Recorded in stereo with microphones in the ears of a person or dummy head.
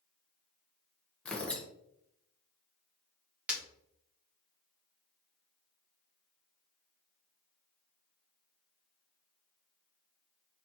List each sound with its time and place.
1.2 s tearing paper: 5° left (ahead or behind), 1.0 m
3.5 s breaking glass: 5° right (ahead or behind), 1.7 m